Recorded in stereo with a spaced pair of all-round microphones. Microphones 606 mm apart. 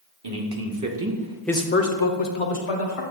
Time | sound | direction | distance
0.2 | a man speaking | 45° right (ahead or behind) | 1.2 m